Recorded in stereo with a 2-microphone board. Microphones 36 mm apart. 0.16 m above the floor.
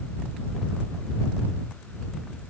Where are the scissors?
No scissors in this recording.